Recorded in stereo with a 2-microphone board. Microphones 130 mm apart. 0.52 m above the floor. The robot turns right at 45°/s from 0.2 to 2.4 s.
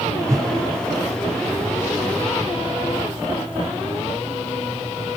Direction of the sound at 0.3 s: 25° right (ahead or behind).